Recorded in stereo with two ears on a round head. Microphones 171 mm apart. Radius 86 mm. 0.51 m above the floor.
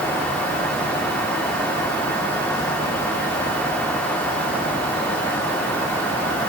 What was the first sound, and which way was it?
Only background noise.